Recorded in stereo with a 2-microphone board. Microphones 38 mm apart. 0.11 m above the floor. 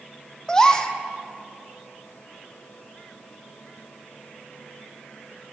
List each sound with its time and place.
0.5 s a gasp: 15° left (ahead or behind), 0.8 m